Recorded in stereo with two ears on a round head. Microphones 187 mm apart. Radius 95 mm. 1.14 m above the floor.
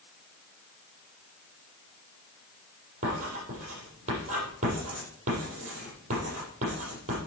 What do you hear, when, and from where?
3.0 s writing: 35° right (ahead or behind), 7 m